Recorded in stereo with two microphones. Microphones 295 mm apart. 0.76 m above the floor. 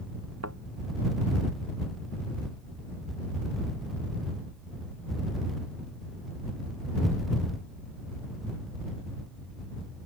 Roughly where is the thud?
Right.